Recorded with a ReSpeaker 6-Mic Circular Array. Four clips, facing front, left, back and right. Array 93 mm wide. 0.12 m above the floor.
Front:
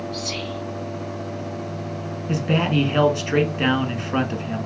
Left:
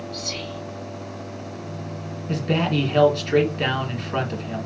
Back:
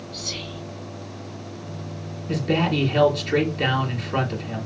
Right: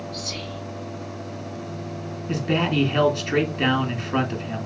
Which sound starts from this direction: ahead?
A man speaking, at 2.3 s.